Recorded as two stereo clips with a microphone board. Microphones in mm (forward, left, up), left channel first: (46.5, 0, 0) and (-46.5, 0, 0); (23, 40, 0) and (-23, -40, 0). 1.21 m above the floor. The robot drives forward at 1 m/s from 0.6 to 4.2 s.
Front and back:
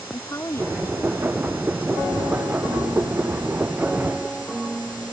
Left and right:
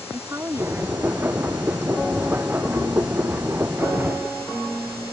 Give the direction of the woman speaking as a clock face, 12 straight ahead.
2 o'clock.